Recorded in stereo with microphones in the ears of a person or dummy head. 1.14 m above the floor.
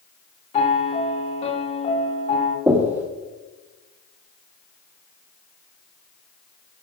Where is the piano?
35° left (ahead or behind), 1.4 m.